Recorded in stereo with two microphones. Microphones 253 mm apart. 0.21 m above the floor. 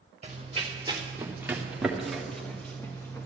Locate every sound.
0.2 s running footsteps: 30° right (ahead or behind), 1.6 m; by 3.3 s 10° left (ahead or behind), 2.5 m